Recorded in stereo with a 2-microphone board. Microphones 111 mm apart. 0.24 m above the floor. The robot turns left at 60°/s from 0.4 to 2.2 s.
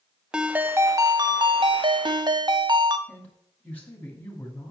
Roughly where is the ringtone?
Ahead.